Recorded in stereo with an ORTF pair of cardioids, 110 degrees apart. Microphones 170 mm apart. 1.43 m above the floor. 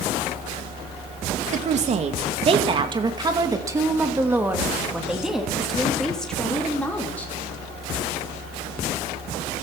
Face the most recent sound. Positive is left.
turn(degrees=10)